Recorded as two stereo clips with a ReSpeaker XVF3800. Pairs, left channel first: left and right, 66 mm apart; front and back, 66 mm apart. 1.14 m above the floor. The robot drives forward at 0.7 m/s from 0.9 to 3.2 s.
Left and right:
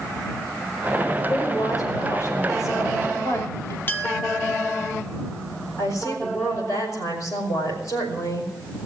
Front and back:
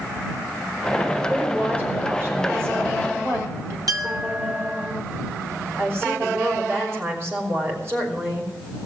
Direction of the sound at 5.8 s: 125° left.